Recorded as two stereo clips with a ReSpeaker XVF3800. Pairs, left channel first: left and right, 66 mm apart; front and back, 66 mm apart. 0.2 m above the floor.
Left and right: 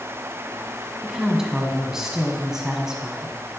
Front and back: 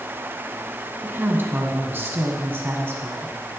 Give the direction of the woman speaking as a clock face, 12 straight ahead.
5 o'clock.